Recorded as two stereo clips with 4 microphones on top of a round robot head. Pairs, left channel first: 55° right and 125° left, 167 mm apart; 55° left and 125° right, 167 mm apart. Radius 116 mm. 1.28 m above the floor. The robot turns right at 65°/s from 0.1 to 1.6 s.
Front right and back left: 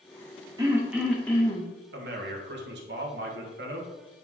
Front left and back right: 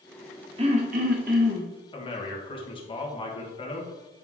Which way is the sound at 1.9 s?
115° left.